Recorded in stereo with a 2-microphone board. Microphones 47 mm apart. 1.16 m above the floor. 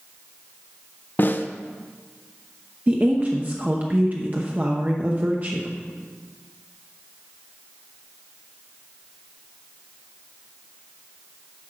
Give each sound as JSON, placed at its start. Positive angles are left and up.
{"t": 1.2, "sound": "a snare drum", "side_deg": 45, "distance_m": 0.5}
{"t": 2.9, "sound": "a woman speaking", "side_deg": -35, "distance_m": 0.7}